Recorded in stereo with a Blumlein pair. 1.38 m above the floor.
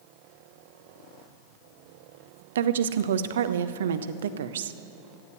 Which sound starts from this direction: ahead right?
A woman speaking, at 2.5 s.